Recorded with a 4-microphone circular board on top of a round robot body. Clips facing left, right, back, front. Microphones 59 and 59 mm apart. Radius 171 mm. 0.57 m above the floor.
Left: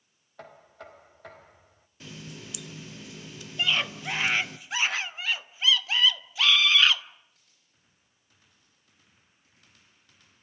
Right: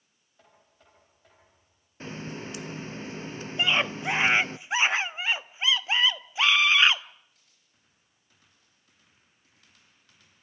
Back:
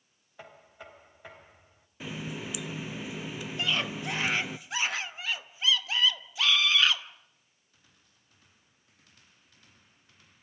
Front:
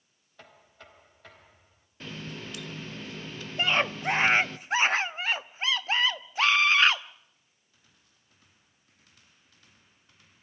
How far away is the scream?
About 1.4 m.